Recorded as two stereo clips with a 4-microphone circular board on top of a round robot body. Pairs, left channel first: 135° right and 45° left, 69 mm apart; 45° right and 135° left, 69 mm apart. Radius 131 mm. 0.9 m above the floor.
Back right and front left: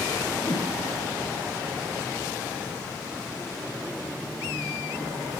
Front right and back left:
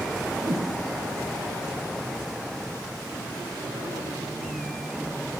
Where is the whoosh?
170° left, 5 m.